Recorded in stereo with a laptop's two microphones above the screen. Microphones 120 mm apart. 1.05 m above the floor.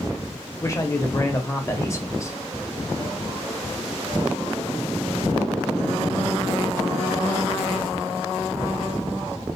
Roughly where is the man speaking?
Left.